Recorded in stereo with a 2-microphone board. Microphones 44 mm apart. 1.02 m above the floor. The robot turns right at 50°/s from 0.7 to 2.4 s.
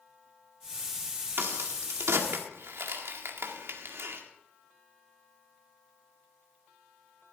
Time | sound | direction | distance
1.4 | a crack | 55° right (ahead or behind) | 1.9 m